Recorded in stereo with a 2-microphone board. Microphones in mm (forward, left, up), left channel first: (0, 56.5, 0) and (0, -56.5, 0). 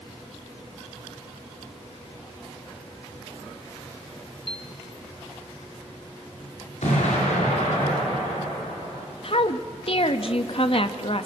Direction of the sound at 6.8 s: 80° left.